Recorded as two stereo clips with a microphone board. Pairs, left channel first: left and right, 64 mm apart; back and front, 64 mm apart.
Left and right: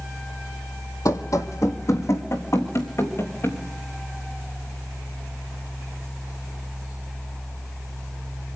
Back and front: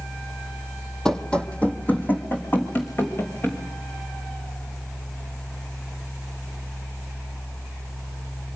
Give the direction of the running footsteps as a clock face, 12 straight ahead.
9 o'clock.